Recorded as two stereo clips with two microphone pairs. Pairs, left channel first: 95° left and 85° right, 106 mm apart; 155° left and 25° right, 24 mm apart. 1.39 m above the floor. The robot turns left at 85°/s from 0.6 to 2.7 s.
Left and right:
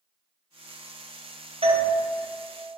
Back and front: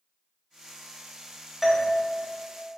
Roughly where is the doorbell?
Right.